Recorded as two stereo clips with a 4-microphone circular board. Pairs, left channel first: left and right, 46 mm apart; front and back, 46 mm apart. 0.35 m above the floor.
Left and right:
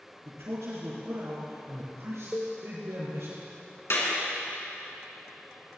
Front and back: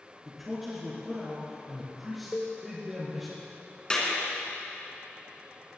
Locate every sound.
0.2 s a man speaking: 90° right, 4 m
2.3 s a cowbell: 75° right, 1.5 m
3.9 s a clap: 70° left, 3 m